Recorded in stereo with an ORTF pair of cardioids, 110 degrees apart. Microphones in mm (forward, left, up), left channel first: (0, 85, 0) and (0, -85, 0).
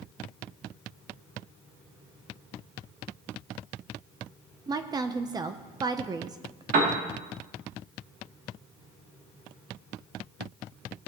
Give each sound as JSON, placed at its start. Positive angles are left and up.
{"t": 4.7, "sound": "a woman speaking", "azimuth_deg": -25, "distance_m": 0.8}
{"t": 6.7, "sound": "a piano", "azimuth_deg": -60, "distance_m": 2.5}